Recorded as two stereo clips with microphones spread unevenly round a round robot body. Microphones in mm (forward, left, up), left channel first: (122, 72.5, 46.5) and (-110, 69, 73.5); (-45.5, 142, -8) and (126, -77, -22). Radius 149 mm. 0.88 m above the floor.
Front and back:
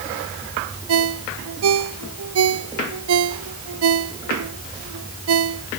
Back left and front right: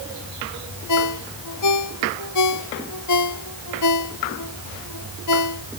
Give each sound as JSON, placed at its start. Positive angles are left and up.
{"t": 0.9, "sound": "a ringtone", "azimuth_deg": 165}